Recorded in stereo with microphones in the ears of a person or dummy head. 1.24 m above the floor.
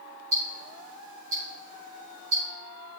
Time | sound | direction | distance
0.3 | ticking | 75° right (ahead or behind) | 4.5 m